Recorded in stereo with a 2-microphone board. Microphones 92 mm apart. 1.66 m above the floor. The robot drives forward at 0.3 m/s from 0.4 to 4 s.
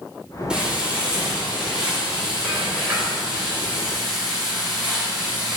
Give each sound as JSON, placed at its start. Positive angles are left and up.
{"t": 0.5, "sound": "frying", "side_deg": -10, "distance_m": 2.5}